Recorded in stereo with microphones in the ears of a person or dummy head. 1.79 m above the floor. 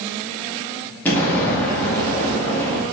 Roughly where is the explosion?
Centre.